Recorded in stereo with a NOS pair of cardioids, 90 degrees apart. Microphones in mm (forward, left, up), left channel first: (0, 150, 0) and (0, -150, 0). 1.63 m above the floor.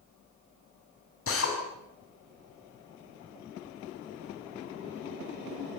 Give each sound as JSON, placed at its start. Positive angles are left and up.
{"t": 1.3, "sound": "a drill", "azimuth_deg": 45, "distance_m": 6.5}